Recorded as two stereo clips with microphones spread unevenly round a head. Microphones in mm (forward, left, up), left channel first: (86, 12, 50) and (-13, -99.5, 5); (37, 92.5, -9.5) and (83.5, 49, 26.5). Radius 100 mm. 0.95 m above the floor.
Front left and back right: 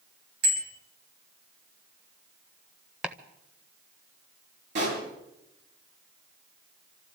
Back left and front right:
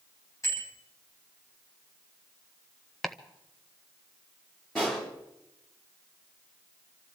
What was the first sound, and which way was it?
A bicycle bell, 155° right.